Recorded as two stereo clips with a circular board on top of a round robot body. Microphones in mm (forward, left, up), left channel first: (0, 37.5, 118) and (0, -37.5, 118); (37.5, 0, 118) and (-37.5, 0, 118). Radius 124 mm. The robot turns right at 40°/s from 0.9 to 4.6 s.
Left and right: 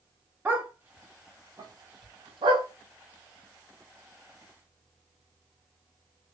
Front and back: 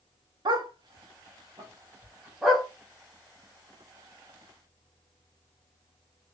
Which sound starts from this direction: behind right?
A dog barking, at 0.5 s.